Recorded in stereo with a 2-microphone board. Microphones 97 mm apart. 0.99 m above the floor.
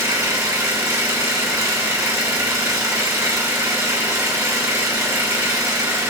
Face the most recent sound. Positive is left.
turn(degrees=-30)  # may be behind; listen again after turning